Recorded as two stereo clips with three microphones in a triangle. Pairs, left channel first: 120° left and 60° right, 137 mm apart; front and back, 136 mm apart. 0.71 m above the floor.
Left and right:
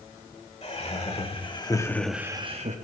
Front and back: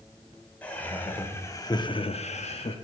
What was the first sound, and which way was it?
Laughter, 80° left.